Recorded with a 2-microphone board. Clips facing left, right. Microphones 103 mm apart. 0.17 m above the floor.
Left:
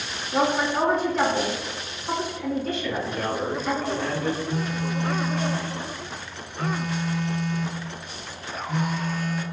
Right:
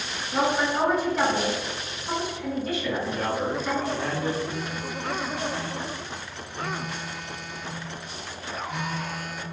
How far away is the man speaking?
About 1.7 m.